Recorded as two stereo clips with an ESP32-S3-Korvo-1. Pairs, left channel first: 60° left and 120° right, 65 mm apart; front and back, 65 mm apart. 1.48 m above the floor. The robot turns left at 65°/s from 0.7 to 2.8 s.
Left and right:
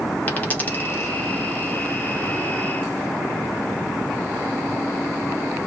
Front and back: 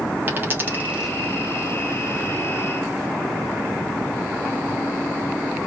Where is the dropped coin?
120° left, 1.5 m; by 1.1 s 90° left, 1.5 m.